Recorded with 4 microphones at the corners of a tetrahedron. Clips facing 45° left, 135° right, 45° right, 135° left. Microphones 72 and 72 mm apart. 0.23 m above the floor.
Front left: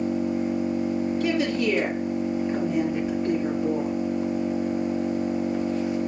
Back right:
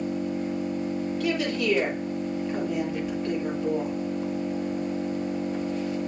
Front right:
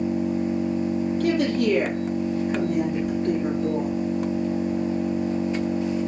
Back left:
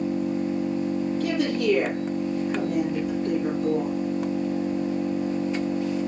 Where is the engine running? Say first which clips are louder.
Front left 4 dB, front right 1 dB; 5° right, 1.1 m.